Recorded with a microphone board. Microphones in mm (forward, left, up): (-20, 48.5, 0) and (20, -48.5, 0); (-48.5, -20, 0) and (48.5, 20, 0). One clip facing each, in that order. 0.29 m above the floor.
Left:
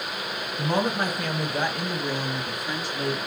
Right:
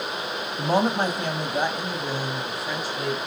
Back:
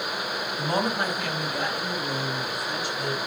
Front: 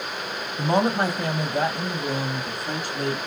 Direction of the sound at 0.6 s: 35° right.